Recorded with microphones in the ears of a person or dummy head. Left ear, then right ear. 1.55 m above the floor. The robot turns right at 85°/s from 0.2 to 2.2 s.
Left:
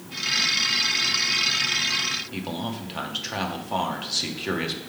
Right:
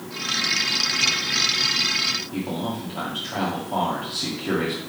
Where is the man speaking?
60° left (ahead or behind), 1.3 m.